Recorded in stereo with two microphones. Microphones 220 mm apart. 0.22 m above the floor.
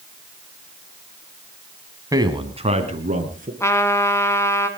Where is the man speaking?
15° right (ahead or behind), 1.8 m; by 3.5 s 40° right (ahead or behind), 3.5 m.